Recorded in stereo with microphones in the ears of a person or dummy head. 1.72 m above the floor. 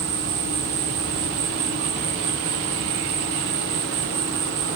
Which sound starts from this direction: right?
An insect, at 0.0 s.